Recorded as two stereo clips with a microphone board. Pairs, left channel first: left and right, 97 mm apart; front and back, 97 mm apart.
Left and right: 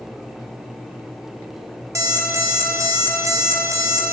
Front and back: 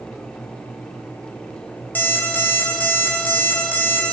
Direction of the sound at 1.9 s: 60° right.